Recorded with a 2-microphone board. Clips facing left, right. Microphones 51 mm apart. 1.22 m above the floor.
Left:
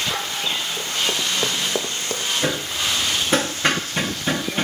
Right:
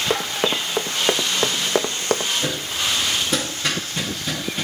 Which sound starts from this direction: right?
Running footsteps, at 0.1 s.